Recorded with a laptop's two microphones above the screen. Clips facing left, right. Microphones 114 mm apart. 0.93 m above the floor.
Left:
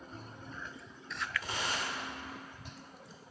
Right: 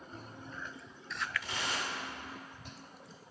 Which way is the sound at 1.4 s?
40° left (ahead or behind).